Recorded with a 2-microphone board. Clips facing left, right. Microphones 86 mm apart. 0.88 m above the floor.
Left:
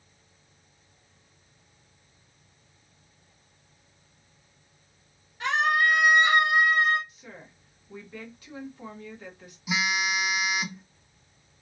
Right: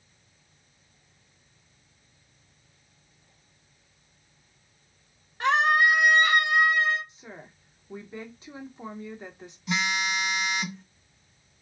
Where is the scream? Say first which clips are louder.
Right 3 dB; 45° right (ahead or behind), 0.9 m; by 7.0 s 50° left (ahead or behind), 1.3 m.